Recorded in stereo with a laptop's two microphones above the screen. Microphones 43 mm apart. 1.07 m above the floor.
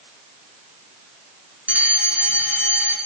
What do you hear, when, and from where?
1.7 s a fire alarm: 30° right (ahead or behind), 5 m